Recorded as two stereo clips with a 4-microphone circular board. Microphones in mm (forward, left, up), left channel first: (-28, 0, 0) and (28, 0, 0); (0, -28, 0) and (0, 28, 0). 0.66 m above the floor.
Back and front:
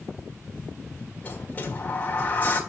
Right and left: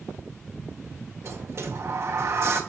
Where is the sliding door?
120° left, 1.5 m.